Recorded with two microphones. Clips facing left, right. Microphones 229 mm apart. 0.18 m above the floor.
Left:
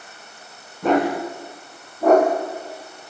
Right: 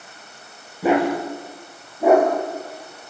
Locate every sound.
0.8 s a dog barking: 10° right (ahead or behind), 9.5 m; by 3.1 s 5° right (ahead or behind), 8 m